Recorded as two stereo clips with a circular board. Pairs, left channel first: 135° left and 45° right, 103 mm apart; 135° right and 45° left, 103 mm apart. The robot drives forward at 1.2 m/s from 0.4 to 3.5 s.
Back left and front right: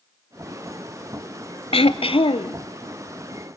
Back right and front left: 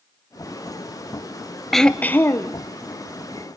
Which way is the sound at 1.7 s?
135° left.